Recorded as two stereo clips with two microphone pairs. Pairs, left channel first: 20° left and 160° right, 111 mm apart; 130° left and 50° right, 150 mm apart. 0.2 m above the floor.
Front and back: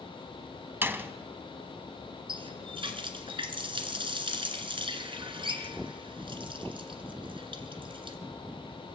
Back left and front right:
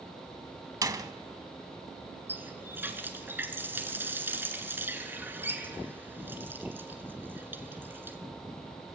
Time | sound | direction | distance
0.8 | a door slam | 100° right | 0.8 m
2.3 | a running tap | 125° right | 1.7 m